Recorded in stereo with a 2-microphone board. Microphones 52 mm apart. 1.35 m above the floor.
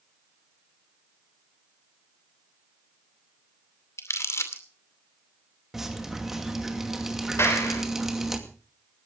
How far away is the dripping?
About 2.5 m.